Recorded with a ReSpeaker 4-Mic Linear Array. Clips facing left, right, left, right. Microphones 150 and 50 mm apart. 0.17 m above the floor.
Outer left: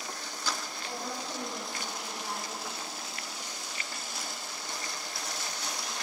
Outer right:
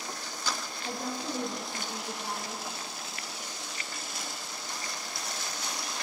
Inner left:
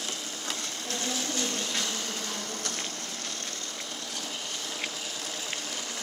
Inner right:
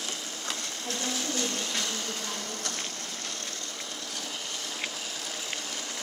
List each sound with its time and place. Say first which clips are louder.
0.8 s a woman speaking: outer right 4 dB, even; 50° right (ahead or behind), 2 m; by 2.6 s 20° right (ahead or behind), 2.0 m